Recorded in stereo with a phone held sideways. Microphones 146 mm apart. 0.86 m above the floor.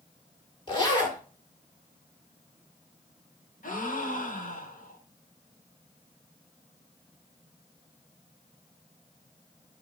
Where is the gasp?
70° left (ahead or behind), 1.1 m.